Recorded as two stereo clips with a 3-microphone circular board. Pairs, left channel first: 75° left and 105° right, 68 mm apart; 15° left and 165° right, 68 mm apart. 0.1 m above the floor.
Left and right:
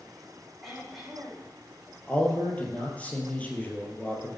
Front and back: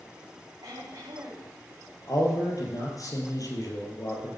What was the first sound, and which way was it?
Throat clearing, 165° left.